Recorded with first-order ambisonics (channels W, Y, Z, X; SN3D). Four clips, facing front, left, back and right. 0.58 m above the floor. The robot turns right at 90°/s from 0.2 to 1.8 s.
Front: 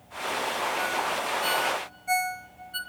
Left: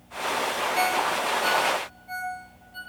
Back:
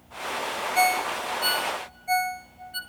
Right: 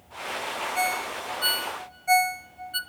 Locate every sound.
0.8 s a ringtone: 170° right, 1.5 m; by 2.8 s 75° right, 1.5 m